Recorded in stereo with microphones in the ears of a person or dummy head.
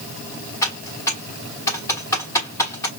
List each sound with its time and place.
0.6 s typing on a keyboard: 20° left (ahead or behind), 1.3 m